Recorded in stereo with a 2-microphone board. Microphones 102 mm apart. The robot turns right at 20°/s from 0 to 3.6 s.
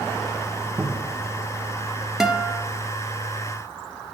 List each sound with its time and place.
0.8 s a cupboard door: 30° right (ahead or behind), 1.1 m; by 1.2 s 35° right (ahead or behind), 1.1 m
2.2 s a guitar: 5° right (ahead or behind), 0.8 m; by 2.6 s 15° right (ahead or behind), 0.8 m